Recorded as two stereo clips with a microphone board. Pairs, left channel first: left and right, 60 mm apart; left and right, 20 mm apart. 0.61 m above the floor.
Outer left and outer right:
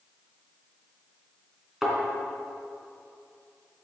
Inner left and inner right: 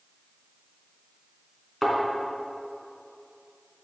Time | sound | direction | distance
1.8 | a thud | 5° right (ahead or behind) | 3 m